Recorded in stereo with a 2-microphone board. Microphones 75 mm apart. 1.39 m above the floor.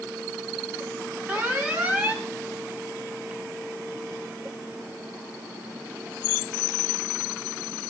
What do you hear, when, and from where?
1.3 s an alarm: 20° right (ahead or behind), 2 m